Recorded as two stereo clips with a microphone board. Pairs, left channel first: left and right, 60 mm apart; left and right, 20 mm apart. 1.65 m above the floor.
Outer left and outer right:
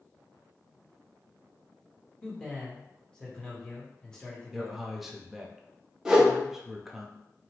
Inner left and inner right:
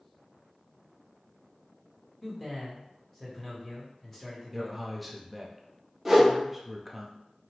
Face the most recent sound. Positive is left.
turn(degrees=-10)  # may be behind; listen again after turning